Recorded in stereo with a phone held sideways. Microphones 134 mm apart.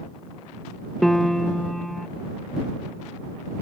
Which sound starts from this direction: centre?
A piano, at 1.0 s.